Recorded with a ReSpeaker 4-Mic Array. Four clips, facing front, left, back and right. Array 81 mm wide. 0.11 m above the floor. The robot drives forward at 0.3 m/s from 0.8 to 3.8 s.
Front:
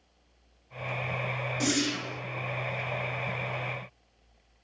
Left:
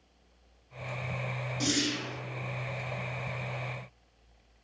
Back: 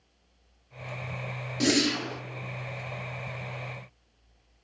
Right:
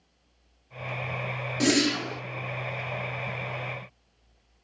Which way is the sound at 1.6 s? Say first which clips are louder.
Right 8 dB, back 5 dB; 130° right.